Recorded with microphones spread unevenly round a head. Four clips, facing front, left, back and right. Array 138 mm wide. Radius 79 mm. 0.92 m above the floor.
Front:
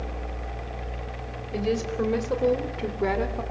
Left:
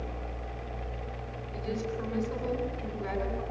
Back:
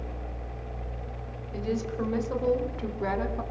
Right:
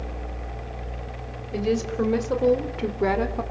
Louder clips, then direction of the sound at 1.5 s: Right 10 dB, front 4 dB; 50° right.